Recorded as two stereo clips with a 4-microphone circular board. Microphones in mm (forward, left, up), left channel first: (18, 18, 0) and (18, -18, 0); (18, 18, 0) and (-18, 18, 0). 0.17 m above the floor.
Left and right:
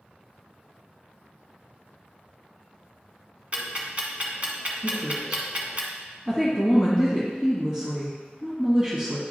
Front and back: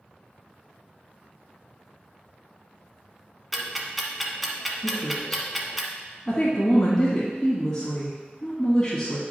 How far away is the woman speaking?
About 1.5 m.